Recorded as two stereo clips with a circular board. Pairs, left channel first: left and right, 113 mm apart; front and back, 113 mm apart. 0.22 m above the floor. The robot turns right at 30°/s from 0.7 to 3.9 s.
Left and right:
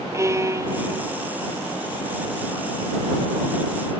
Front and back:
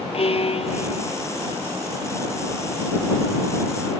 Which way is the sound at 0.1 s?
25° right.